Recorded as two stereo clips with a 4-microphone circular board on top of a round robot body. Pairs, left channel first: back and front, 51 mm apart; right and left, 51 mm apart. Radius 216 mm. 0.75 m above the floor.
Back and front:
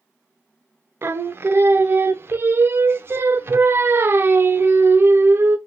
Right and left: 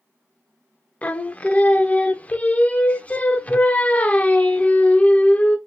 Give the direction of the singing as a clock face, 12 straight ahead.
1 o'clock.